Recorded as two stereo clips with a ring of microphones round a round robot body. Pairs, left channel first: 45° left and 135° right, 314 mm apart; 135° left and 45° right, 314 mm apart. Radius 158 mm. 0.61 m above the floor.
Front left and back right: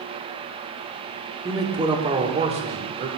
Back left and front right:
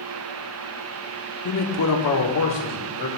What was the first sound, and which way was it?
A man speaking, 145° left.